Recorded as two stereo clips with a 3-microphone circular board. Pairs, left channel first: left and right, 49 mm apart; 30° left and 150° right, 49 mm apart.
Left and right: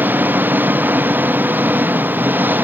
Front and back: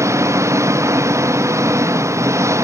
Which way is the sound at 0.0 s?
140° right.